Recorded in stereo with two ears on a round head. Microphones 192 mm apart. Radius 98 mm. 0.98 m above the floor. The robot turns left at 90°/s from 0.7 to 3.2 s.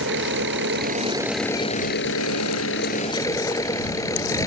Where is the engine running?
120° right; by 4.5 s 15° left.